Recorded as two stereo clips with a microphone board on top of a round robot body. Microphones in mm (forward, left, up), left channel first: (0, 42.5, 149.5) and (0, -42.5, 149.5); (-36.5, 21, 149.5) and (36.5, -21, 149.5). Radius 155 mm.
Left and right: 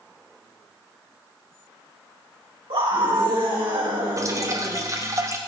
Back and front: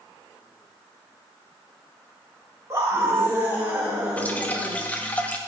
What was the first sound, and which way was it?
A scream, 85° right.